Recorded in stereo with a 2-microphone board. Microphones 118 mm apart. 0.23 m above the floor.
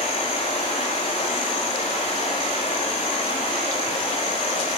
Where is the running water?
65° left (ahead or behind), 8 m.